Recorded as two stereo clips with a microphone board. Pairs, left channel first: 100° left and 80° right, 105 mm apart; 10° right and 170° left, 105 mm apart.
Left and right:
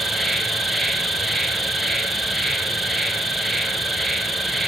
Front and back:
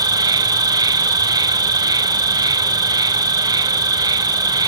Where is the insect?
170° right, 1.9 m.